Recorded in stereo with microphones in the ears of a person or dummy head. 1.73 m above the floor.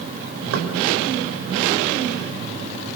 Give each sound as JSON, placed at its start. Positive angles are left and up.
{"t": 0.5, "sound": "knocking", "side_deg": -85, "distance_m": 5.5}